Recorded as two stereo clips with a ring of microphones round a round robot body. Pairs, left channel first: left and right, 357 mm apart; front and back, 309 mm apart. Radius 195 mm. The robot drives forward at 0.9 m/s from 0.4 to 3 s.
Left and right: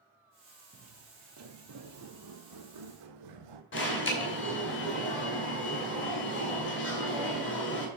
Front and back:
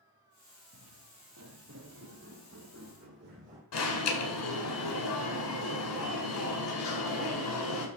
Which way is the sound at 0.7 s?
140° right.